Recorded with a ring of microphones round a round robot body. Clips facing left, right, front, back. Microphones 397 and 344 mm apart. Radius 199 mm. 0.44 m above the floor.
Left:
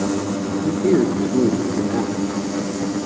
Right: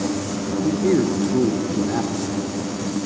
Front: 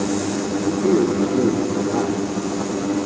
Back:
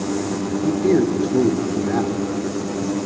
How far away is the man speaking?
About 1.4 m.